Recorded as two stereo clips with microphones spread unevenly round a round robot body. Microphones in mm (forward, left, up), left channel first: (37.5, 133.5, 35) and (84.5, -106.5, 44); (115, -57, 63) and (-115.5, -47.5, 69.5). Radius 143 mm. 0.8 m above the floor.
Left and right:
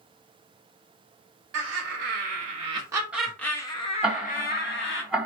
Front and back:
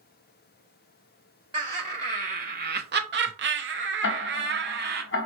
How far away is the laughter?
About 1.2 m.